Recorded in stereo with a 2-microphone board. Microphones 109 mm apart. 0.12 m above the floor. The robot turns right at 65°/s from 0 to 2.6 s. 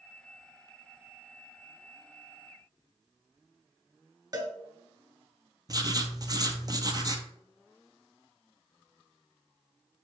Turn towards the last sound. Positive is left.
turn(degrees=-40)  # may be behind; listen again after turning